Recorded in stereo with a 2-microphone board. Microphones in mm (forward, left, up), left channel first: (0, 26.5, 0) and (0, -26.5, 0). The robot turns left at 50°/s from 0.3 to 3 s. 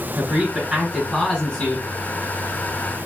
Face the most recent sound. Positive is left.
turn(degrees=90)